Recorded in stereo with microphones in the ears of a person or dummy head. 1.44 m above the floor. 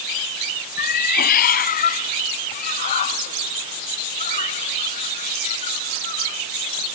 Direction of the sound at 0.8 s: 70° left (ahead or behind).